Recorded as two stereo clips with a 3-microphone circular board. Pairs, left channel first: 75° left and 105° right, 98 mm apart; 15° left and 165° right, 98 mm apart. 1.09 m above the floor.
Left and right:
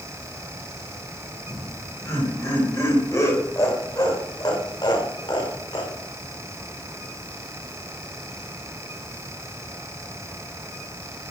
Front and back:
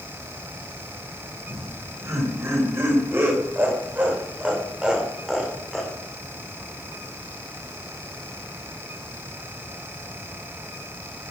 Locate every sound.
1.5 s laughter: 140° left, 5 m; by 5.9 s 100° left, 3 m